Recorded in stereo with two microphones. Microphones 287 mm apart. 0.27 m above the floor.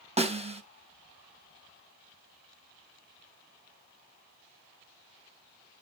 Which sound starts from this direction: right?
A snare drum, at 0.2 s.